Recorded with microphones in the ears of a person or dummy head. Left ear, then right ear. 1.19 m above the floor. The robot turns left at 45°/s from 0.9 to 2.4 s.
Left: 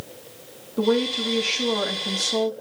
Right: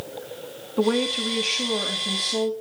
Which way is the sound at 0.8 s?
160° right.